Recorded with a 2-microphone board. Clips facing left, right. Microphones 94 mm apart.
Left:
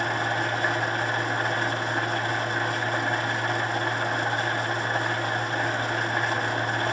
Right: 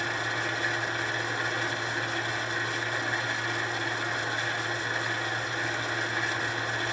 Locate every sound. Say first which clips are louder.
0.0 s an engine running: left 5 dB; 60° left (ahead or behind), 0.9 m